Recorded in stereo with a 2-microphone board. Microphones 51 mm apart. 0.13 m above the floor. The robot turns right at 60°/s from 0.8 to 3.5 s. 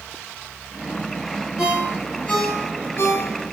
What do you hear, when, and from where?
1.6 s a ringtone: 15° right (ahead or behind), 1.7 m; by 3.3 s 60° left (ahead or behind), 1.7 m